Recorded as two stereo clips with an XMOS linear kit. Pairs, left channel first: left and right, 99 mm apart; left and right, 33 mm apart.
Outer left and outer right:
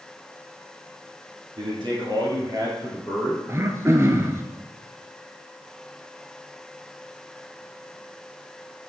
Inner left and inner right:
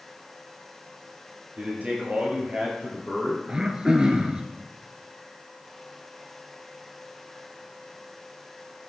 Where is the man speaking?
55° right (ahead or behind), 2.5 m; by 3.4 s 20° right (ahead or behind), 2 m.